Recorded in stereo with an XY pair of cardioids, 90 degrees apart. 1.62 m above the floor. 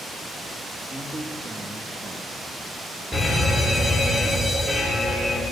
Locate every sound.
0.9 s a man speaking: 25° right, 2.5 m
3.1 s a fire alarm: 10° left, 8.5 m